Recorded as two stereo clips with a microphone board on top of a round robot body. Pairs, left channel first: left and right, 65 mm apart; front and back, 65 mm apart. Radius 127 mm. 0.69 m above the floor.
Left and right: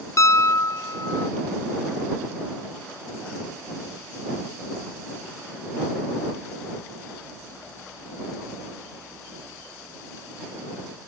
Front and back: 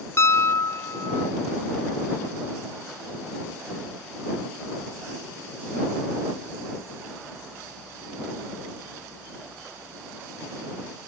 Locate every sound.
0.2 s a piano: 50° left